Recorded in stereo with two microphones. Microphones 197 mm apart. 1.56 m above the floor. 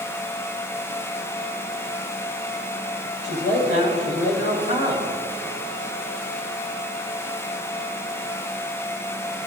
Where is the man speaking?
60° left (ahead or behind), 8 m.